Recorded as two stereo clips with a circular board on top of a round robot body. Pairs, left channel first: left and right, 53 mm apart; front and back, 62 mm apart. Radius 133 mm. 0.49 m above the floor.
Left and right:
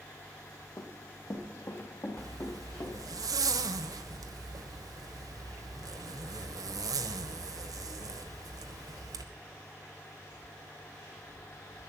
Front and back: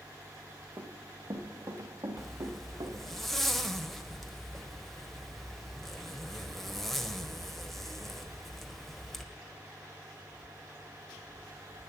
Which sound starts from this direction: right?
A zipper, at 2.2 s.